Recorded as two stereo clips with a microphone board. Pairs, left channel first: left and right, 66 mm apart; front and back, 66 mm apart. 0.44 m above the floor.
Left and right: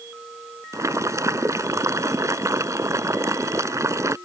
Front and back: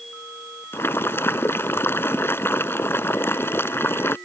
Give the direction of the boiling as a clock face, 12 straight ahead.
2 o'clock.